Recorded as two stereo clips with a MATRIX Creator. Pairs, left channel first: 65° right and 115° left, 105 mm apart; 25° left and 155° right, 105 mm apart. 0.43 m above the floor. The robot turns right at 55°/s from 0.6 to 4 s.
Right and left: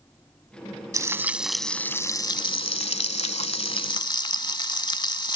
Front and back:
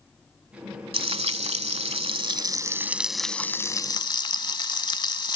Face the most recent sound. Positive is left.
turn(degrees=-20)